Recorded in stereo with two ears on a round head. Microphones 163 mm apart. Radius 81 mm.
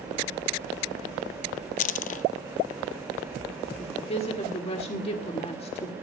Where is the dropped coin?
45° left (ahead or behind), 0.6 m.